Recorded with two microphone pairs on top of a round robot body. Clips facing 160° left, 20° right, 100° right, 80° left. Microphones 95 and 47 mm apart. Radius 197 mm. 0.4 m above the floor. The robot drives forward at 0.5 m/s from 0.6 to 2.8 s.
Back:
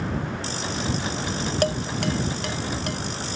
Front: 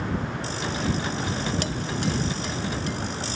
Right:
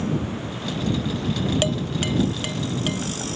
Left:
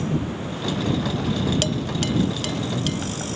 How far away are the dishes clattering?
About 0.6 m.